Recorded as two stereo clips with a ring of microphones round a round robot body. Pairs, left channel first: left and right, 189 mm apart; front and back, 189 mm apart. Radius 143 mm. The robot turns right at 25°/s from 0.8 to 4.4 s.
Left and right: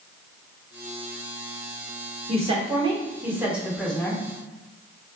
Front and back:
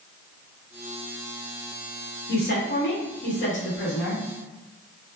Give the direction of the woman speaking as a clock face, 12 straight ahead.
1 o'clock.